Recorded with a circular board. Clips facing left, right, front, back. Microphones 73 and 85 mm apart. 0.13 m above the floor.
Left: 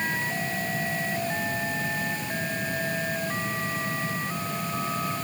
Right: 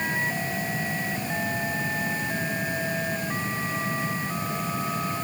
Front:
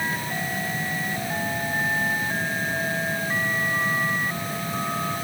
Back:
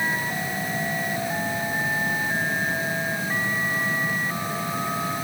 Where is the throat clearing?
No throat clearing in this recording.